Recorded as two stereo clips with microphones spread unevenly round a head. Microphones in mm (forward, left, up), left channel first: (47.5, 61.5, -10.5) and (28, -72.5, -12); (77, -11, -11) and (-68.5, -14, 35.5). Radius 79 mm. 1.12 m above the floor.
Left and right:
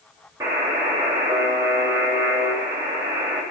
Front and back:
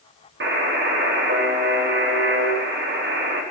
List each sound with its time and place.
0.4 s a buzzer: 170° right, 4 m